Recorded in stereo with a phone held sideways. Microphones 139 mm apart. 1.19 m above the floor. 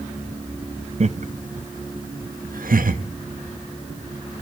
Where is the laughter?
55° right (ahead or behind), 1.0 m; by 3.0 s 85° right, 1.6 m.